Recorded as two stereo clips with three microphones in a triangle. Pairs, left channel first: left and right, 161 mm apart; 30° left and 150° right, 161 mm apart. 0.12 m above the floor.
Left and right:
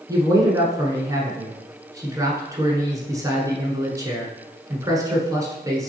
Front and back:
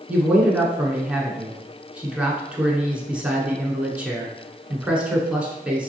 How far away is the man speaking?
About 1.1 m.